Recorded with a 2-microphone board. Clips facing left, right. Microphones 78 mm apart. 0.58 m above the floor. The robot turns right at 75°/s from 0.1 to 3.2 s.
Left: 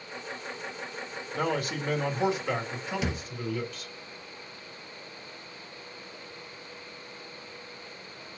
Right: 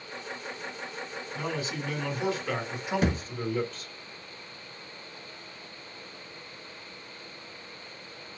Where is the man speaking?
85° left, 1.9 m; by 3.9 s 140° right, 1.9 m.